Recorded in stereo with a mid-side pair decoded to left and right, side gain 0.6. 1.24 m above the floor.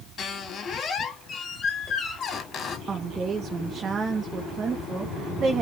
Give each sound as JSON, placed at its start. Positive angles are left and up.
{"t": 0.2, "sound": "a squeak", "azimuth_deg": 40, "distance_m": 2.0}
{"t": 2.9, "sound": "a woman speaking", "azimuth_deg": -30, "distance_m": 1.5}